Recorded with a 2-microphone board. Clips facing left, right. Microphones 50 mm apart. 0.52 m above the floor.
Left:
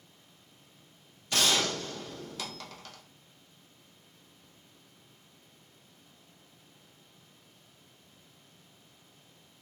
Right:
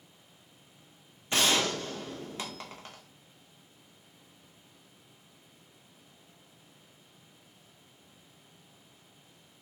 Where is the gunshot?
30° right (ahead or behind), 0.5 m.